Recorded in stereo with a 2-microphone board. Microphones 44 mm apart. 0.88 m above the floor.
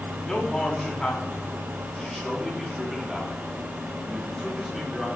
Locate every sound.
0.2 s a man speaking: 15° left (ahead or behind), 7 m; by 5.1 s 10° right (ahead or behind), 8.5 m